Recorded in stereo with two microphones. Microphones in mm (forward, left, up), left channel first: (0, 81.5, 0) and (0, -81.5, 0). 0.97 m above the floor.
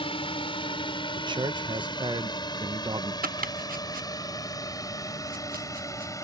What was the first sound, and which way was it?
A drone, 35° left (ahead or behind).